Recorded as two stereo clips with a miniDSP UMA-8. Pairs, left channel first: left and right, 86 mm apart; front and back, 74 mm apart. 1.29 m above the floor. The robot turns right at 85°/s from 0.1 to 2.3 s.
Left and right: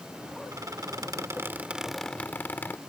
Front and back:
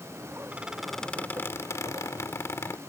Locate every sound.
0.5 s a squeak: 120° right; by 2.8 s 30° left